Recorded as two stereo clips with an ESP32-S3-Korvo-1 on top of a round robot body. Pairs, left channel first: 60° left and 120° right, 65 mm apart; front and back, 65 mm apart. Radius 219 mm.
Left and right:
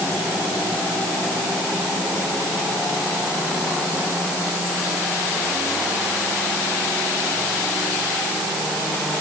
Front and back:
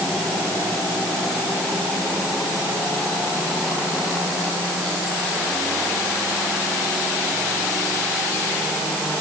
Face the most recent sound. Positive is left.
No sound to turn to.